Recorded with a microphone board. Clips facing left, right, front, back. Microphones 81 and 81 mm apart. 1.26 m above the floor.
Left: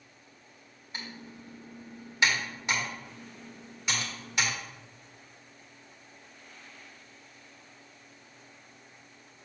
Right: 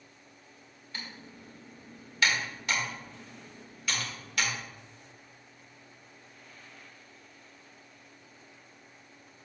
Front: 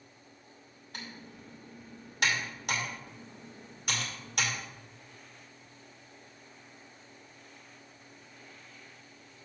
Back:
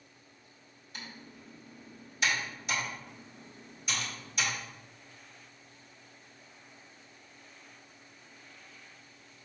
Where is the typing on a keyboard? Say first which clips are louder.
Left 2 dB, front 2 dB; 20° left, 2 m.